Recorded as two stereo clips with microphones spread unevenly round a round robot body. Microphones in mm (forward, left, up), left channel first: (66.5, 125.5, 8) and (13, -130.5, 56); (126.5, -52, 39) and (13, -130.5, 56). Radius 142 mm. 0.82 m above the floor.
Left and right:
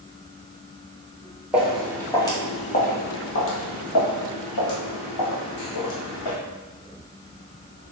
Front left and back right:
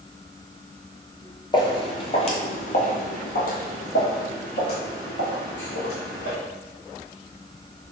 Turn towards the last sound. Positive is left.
turn(degrees=80)